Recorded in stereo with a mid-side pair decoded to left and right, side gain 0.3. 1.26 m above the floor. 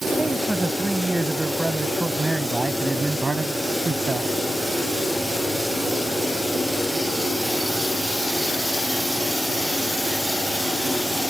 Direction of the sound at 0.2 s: 20° right.